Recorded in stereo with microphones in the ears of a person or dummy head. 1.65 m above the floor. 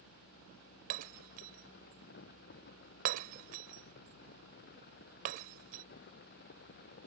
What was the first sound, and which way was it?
Breaking glass, 40° right (ahead or behind).